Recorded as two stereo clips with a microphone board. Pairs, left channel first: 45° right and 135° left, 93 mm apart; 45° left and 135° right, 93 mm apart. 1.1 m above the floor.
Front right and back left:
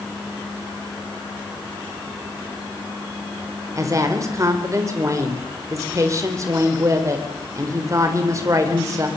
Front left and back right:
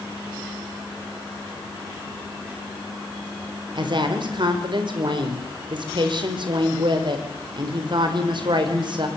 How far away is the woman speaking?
About 4 m.